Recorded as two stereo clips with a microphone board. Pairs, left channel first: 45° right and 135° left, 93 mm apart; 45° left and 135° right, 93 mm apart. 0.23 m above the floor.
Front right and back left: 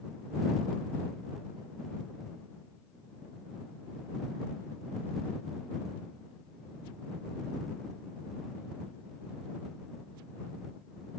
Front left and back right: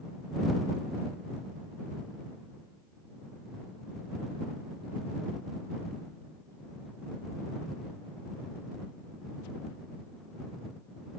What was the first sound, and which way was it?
Only background noise.